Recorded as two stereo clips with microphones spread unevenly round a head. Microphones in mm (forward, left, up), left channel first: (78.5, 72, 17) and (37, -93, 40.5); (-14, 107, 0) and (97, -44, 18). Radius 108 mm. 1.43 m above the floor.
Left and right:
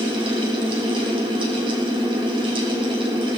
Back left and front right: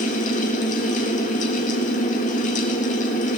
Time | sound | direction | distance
0.0 | a fan | 170° right | 1.5 m